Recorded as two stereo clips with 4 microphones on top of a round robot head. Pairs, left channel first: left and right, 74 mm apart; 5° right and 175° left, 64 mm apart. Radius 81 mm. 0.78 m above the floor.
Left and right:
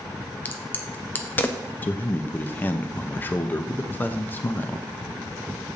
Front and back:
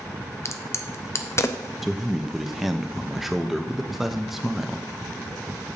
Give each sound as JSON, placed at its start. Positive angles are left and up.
{"t": 0.5, "sound": "a crack", "azimuth_deg": 30, "distance_m": 0.7}
{"t": 1.8, "sound": "a man speaking", "azimuth_deg": 90, "distance_m": 0.7}